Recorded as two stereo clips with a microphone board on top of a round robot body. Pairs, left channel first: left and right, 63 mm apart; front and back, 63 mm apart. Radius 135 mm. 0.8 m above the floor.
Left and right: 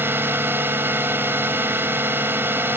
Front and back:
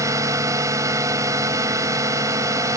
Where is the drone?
145° right.